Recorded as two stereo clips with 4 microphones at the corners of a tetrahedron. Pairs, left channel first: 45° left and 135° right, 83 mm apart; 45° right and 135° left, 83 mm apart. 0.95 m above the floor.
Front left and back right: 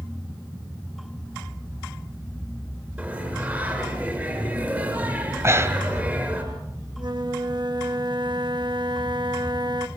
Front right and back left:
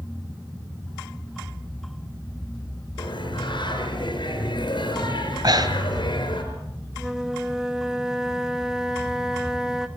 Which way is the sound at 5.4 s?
165° left.